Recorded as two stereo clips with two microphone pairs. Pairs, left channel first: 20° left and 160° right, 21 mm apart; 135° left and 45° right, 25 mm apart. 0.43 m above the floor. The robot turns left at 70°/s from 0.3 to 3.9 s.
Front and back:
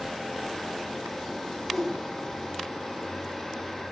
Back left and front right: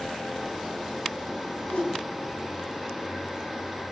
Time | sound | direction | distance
1.7 | a whoosh | 105° left | 3 m